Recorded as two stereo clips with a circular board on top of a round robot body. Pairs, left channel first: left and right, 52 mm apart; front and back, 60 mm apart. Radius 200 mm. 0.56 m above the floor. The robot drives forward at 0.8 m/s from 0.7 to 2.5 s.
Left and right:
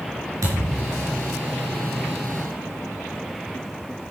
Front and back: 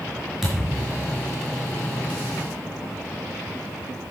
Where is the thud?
95° right, 4 m; by 1.2 s 105° right, 4 m.